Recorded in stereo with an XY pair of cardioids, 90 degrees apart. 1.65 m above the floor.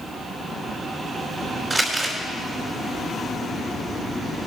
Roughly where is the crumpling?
Ahead.